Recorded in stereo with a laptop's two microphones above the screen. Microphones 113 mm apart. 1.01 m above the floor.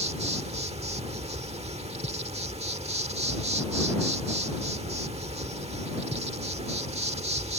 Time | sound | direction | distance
0.0 | an insect | 70° right (ahead or behind) | ?